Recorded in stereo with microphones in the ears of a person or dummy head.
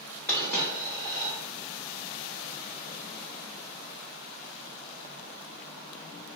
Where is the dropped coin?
10° left (ahead or behind), 1.9 m.